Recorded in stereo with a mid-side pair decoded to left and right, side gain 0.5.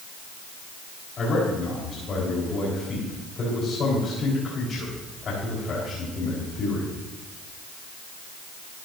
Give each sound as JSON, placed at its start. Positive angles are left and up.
{"t": 1.2, "sound": "a man speaking", "azimuth_deg": 45, "distance_m": 4.0}